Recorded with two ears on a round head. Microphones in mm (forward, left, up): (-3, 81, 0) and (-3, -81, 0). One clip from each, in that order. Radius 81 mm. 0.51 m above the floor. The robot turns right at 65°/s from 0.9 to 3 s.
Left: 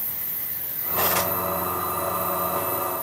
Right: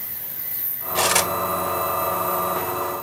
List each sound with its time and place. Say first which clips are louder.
0.9 s cutlery clinking: right 4 dB; 70° right (ahead or behind), 1.4 m; by 1.3 s 60° right (ahead or behind), 1.4 m